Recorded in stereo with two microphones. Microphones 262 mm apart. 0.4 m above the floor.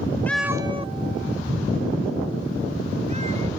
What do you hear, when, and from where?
0.3 s a cat meowing: 5° left (ahead or behind); by 3.5 s 25° right (ahead or behind)